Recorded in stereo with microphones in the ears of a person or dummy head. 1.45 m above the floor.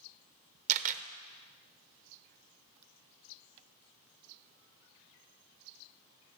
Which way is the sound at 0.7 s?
45° right (ahead or behind).